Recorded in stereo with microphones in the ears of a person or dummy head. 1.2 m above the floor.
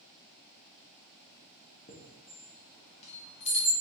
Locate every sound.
1.9 s a chime: 40° left (ahead or behind), 0.9 m